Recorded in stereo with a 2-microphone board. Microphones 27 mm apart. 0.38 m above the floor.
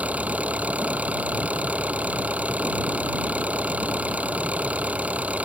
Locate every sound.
0.0 s an engine running: 55° right (ahead or behind)